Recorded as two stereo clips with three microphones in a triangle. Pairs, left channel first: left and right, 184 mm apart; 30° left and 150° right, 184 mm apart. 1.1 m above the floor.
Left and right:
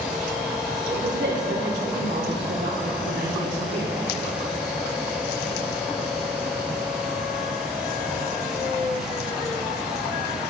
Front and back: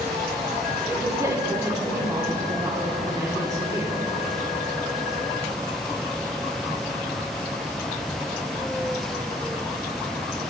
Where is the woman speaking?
80° right, 3 m.